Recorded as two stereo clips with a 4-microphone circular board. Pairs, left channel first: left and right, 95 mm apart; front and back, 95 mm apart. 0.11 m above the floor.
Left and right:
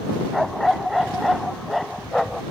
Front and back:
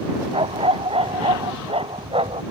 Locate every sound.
0.3 s a dog barking: straight behind